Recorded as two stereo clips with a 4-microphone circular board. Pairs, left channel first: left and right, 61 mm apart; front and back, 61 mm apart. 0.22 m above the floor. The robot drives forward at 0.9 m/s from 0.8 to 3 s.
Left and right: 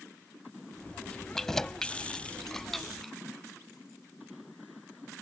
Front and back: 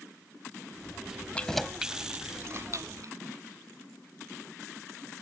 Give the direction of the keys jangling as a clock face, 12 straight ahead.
11 o'clock.